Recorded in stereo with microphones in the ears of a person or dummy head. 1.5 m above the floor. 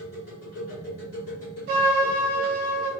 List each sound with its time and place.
0.0 s a machine running: 45° left (ahead or behind), 1.0 m
1.7 s a trumpet: 30° right (ahead or behind), 0.9 m